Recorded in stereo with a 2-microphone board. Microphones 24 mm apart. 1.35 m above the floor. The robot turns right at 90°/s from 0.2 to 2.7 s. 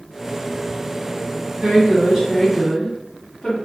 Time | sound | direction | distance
1.6 | a woman speaking | 75° right | 1.4 m